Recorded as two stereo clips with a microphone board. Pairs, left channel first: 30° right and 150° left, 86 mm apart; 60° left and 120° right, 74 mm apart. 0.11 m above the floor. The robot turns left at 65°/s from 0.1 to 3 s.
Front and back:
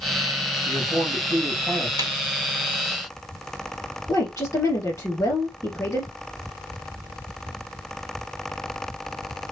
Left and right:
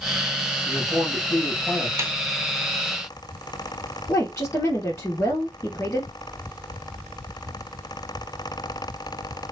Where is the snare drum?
175° right, 1.0 m; by 2.1 s 175° left, 1.0 m.